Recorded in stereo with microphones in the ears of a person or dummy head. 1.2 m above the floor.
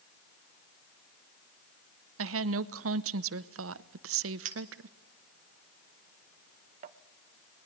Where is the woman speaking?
70° right (ahead or behind), 0.8 m.